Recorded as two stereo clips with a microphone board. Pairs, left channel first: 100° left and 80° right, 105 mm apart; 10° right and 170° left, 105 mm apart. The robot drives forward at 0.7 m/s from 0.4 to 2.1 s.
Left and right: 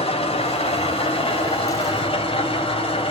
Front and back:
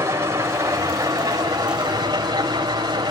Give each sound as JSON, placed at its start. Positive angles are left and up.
{"t": 0.0, "sound": "an engine running", "azimuth_deg": 105, "distance_m": 4.0}